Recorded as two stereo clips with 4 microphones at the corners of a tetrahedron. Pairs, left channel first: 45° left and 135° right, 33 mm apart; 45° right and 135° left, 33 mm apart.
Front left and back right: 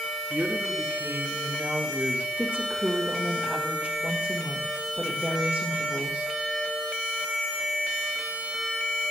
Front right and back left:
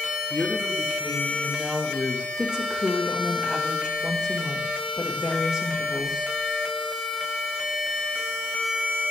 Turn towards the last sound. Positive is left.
turn(degrees=-165)